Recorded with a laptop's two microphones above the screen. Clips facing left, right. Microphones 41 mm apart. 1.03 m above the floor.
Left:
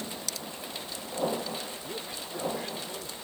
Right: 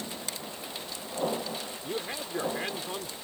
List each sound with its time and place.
0.3 s a finger snap: 30° right (ahead or behind)
1.8 s a man speaking: 45° right (ahead or behind)